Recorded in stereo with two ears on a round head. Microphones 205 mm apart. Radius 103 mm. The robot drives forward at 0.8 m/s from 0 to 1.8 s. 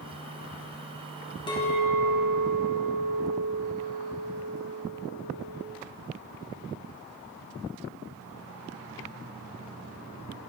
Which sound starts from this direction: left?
A clink, at 1.5 s.